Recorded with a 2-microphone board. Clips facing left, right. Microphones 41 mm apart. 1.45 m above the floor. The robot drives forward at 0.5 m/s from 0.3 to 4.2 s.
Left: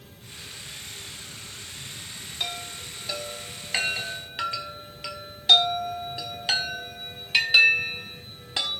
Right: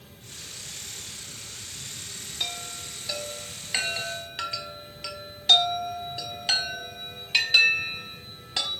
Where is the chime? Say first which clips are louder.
Left 1 dB; 5° left (ahead or behind), 3 m; by 8.8 s 10° left (ahead or behind), 2 m.